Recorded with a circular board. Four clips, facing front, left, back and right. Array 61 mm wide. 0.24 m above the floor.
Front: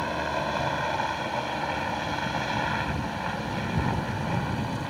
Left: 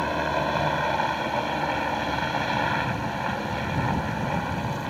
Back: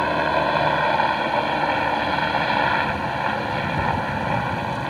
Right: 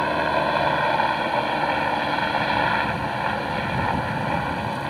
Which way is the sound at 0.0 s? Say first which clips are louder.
Right 4 dB, back 8 dB; 150° right.